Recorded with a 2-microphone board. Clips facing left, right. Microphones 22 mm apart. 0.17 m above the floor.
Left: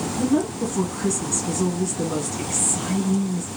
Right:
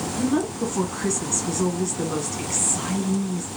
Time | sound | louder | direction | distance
0.2 | a woman speaking | left 2 dB | 20° right (ahead or behind) | 1.1 m